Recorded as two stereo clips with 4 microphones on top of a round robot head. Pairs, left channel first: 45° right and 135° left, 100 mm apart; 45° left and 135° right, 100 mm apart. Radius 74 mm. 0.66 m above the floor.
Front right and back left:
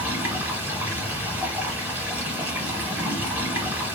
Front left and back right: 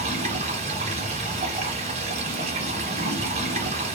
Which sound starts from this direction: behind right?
Running water, at 0.0 s.